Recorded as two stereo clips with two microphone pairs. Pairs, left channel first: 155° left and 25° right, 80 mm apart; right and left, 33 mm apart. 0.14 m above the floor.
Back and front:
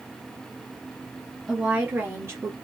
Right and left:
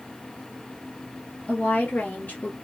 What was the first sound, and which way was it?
A woman speaking, 100° right.